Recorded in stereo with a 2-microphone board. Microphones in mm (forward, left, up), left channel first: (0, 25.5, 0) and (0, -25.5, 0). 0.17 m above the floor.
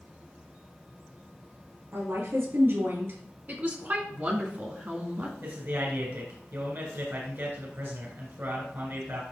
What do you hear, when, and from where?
1.9 s a woman speaking: 60° right (ahead or behind), 3.5 m; by 3.2 s 50° right (ahead or behind), 2.5 m
3.5 s a woman speaking: 35° right (ahead or behind), 2 m
5.4 s a man speaking: 50° right (ahead or behind), 2.5 m